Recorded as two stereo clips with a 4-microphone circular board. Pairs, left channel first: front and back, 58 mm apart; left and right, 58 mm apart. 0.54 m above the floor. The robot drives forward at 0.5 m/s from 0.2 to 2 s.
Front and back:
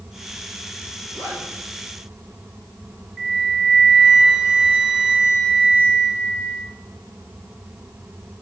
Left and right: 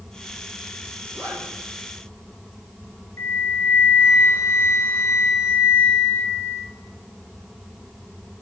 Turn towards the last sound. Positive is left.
turn(degrees=105)